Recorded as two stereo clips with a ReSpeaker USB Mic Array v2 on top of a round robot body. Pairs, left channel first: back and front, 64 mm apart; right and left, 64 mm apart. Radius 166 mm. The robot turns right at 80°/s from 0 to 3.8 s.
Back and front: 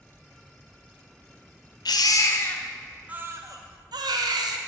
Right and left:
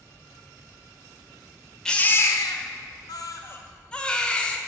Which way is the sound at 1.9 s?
170° right.